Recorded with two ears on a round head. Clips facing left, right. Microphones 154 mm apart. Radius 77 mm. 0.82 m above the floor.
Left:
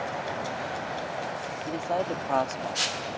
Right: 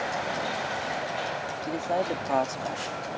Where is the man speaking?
5° right (ahead or behind).